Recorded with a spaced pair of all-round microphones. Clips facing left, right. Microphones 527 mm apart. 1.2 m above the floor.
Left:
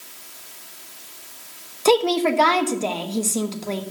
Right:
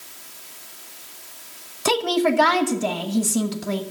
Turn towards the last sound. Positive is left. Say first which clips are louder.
# left 3 dB
turn(degrees=-35)  # may be behind; listen again after turning